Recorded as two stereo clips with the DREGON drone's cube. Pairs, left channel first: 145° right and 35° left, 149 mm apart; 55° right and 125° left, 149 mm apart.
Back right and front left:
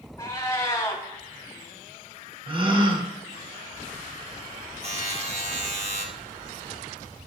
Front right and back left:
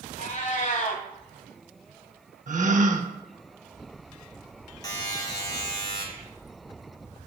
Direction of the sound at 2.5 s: 90° left.